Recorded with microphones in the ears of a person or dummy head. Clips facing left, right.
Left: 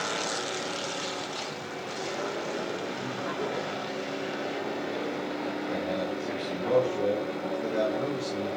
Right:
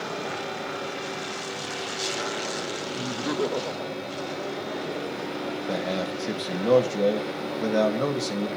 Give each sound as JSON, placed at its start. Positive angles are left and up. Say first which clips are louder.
{"t": 2.9, "sound": "laughter", "louder": "right 5 dB", "side_deg": -30, "distance_m": 0.6}
{"t": 5.7, "sound": "a man speaking", "louder": "right 3 dB", "side_deg": -70, "distance_m": 1.7}